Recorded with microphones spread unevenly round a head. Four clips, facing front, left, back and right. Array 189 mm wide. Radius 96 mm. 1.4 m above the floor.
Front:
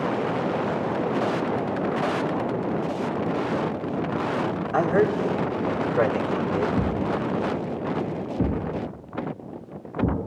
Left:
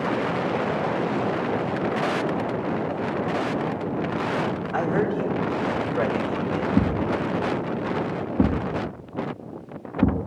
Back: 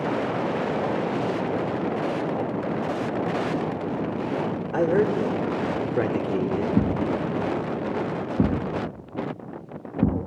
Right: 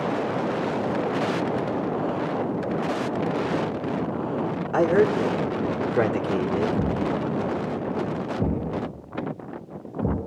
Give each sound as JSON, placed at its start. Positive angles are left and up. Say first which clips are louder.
{"t": 4.7, "sound": "a man speaking", "louder": "right 5 dB, even", "azimuth_deg": -130, "distance_m": 4.0}
{"t": 6.8, "sound": "a thud", "louder": "left 2 dB, back 1 dB", "azimuth_deg": 150, "distance_m": 5.0}